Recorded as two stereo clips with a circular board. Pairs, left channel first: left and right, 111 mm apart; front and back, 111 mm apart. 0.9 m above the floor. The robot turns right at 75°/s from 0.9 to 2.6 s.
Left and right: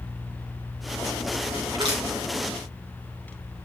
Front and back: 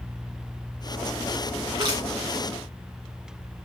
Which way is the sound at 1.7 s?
140° right.